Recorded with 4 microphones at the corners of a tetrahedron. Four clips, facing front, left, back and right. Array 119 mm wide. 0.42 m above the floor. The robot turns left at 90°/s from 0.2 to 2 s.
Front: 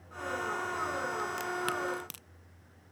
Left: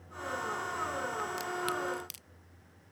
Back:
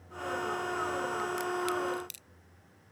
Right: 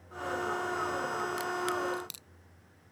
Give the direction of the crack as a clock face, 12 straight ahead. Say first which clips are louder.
Right 2 dB, back 2 dB; 10 o'clock.